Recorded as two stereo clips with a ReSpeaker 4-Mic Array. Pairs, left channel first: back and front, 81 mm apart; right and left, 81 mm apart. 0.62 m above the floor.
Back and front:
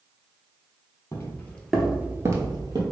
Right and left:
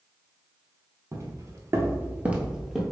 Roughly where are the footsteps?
Behind left.